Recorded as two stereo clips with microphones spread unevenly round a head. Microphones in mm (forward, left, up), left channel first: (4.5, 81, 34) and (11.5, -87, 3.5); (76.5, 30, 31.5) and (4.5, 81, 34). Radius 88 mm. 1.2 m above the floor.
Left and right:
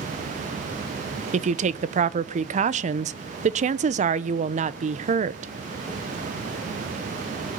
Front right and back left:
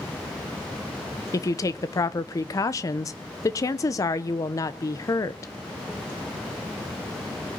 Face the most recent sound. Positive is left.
turn(degrees=-80)